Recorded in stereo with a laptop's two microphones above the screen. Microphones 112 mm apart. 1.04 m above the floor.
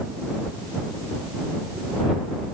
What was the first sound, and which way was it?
Only background noise.